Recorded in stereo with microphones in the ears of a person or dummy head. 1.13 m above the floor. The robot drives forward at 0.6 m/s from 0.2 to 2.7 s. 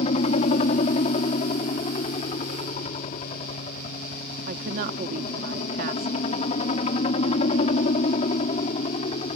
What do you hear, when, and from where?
0.0 s a helicopter: 35° left (ahead or behind)
4.5 s a woman speaking: 50° right (ahead or behind)